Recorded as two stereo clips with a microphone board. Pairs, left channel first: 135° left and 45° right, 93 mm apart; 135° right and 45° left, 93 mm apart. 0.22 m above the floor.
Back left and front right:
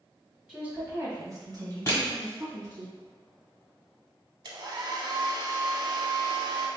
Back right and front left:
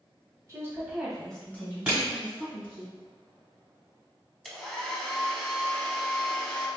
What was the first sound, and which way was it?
A woman speaking, 30° left.